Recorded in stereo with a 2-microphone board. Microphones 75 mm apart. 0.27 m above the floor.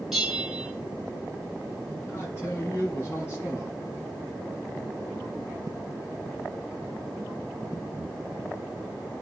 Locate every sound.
0.1 s a bell: 5° right (ahead or behind), 3 m
2.1 s a man speaking: 25° left (ahead or behind), 4.5 m